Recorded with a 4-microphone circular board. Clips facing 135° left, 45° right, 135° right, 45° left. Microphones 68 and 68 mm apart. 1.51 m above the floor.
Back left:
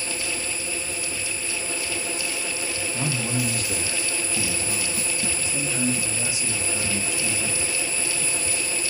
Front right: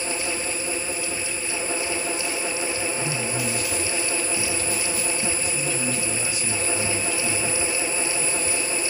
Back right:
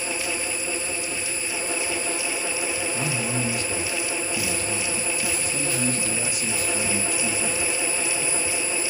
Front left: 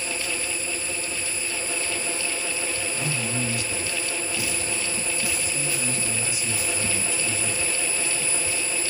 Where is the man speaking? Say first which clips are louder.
Even, back right 2 dB; 165° left, 1.6 m; by 7.8 s 150° right, 3.5 m.